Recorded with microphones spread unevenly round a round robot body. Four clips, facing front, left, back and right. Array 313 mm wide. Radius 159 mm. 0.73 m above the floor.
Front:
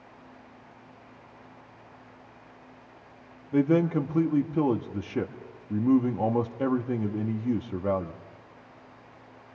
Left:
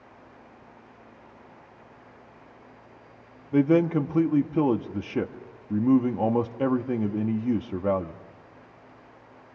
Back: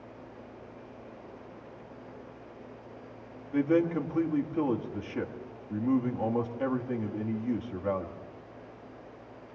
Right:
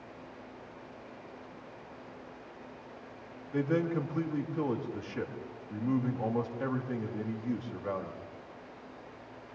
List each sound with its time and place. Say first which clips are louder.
3.5 s a man speaking: left 9 dB, front 3 dB; 60° left, 1.6 m